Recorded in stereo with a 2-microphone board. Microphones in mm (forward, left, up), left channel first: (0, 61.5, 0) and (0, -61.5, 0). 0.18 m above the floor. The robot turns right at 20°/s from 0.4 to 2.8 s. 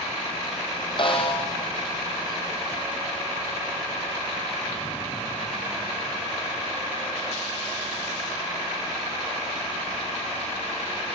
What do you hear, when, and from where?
1.0 s a snare drum: 40° left (ahead or behind), 4 m; by 1.4 s 50° left (ahead or behind), 4 m